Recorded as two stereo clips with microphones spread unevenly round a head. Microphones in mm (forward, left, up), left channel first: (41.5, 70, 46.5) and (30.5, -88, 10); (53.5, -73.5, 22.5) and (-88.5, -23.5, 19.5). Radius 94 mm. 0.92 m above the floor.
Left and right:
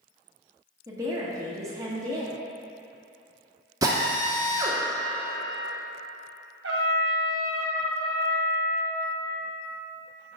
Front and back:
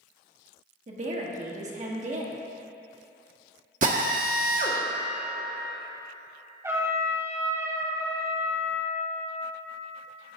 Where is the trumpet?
130° right, 1.5 m.